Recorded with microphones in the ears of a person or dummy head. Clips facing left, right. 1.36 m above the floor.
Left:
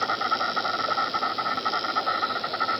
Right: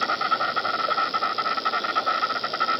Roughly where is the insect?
Right.